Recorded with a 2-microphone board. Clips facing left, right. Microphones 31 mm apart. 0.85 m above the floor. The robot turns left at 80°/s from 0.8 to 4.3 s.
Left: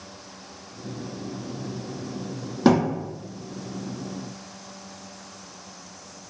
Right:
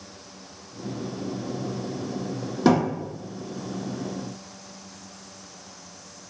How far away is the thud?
About 1.2 m.